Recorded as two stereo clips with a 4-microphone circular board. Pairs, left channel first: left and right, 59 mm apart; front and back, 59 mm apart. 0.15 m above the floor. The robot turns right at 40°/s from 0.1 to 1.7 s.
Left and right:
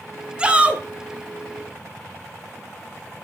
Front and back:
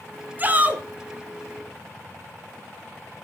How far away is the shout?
About 1.3 m.